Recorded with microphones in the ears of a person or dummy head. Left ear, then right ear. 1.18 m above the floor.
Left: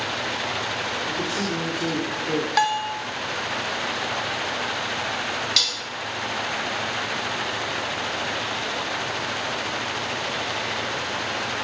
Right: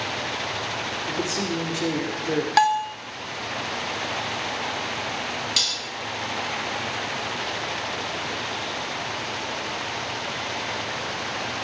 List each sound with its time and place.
1.1 s a man speaking: 50° right (ahead or behind), 2.5 m
2.6 s a bell: 25° right (ahead or behind), 0.9 m
5.6 s dishes clattering: 25° left (ahead or behind), 3 m